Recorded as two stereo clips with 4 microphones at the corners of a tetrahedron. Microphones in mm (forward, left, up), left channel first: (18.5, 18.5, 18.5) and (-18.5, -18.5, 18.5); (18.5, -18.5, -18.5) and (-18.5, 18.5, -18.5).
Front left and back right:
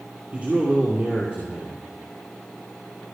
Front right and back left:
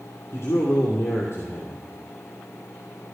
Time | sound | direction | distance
0.3 | a man speaking | 75° right | 2.5 m